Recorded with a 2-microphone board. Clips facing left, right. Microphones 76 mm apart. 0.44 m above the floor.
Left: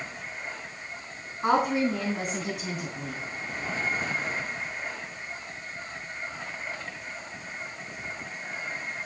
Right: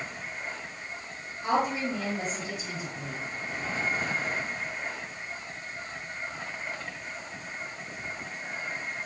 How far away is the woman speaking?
About 4 m.